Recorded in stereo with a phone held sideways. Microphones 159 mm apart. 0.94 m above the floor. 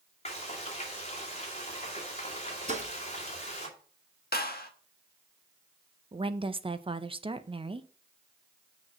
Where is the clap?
80° left, 1.2 m.